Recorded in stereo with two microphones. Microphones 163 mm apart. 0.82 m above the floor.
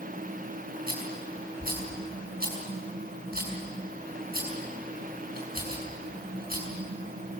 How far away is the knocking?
No knocking in this recording.